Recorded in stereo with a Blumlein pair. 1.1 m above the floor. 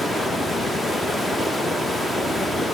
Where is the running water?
5° left, 0.7 m.